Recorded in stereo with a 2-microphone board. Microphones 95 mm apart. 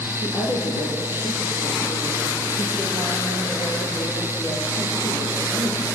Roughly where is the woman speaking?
Left.